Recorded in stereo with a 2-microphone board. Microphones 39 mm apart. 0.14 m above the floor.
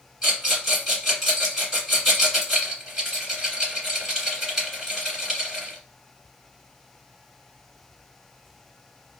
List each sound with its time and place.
0.2 s a rattle: 5° right (ahead or behind), 1.9 m